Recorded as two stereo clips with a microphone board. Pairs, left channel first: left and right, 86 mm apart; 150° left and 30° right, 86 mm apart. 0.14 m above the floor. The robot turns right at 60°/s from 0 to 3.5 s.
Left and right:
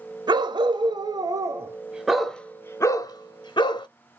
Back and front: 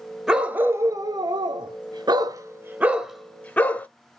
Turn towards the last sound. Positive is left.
turn(degrees=80)